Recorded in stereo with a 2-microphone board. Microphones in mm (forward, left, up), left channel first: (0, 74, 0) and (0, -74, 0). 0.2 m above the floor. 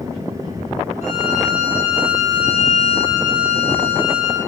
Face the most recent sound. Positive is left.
turn(degrees=50)  # may be behind; listen again after turning